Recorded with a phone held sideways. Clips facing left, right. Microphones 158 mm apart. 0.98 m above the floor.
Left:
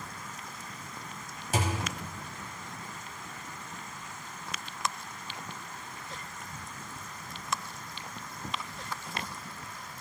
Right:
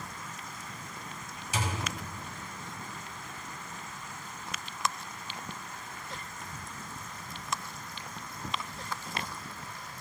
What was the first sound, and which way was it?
A thud, 55° left (ahead or behind).